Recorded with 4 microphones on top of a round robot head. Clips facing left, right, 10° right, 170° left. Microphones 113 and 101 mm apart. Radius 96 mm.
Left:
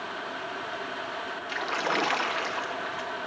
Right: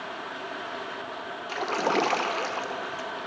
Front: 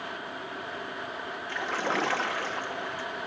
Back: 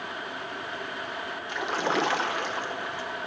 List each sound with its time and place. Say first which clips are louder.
1.5 s a splash: right 4 dB, back 3 dB; 125° right, 1.0 m